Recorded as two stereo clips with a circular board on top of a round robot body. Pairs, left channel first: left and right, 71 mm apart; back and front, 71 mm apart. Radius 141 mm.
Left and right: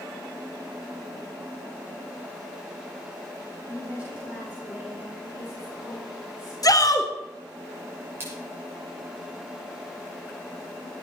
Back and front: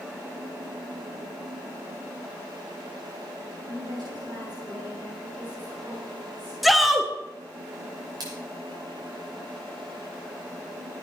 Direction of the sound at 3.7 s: 15° right.